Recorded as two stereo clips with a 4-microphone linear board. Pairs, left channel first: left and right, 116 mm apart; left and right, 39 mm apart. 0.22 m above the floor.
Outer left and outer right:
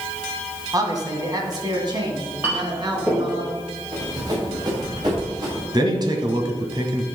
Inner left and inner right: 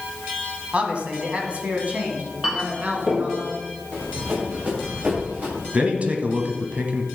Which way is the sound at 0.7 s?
30° right (ahead or behind).